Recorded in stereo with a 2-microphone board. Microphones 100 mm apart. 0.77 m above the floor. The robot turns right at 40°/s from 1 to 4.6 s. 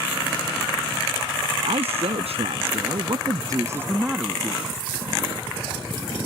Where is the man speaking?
110° right; by 4.6 s 10° left.